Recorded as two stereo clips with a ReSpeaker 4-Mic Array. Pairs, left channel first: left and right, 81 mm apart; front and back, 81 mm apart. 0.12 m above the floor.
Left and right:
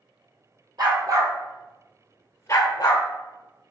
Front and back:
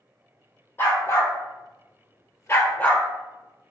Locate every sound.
0.8 s a dog barking: 60° right, 1.2 m; by 3.0 s 75° left, 1.0 m